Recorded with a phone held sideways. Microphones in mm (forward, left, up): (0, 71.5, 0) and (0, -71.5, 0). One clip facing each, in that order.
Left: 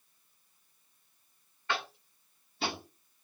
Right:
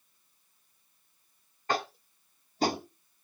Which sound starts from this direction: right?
Tapping, at 1.7 s.